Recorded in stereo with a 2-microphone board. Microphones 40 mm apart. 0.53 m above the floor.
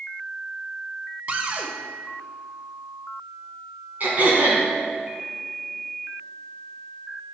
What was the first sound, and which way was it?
A cupboard door, 35° right (ahead or behind).